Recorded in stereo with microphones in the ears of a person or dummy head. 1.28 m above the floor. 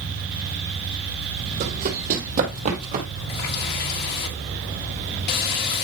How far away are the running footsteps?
About 2.5 m.